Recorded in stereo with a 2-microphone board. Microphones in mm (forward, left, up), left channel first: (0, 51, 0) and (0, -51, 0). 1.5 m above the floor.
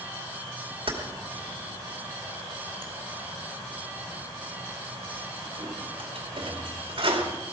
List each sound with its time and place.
0.9 s keys jangling: 60° right (ahead or behind), 2.5 m